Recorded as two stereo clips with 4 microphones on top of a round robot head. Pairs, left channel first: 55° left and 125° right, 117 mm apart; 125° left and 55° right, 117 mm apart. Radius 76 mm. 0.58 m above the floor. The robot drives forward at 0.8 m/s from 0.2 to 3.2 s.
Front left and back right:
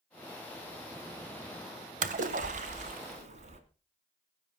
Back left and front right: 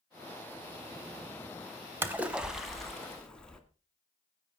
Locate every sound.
2.0 s a splash: 125° right, 1.1 m; by 3.6 s 150° right, 1.8 m